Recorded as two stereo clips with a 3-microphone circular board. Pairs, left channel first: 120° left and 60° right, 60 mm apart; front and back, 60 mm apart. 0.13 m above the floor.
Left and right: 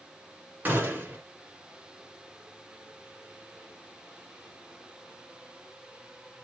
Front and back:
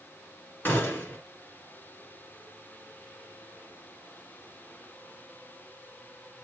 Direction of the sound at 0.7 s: 30° right.